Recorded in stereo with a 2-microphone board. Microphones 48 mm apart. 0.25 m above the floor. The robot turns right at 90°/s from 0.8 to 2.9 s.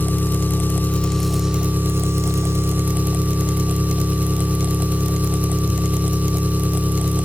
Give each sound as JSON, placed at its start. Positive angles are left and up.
{"t": 0.0, "sound": "an engine running", "azimuth_deg": 135, "distance_m": 0.8}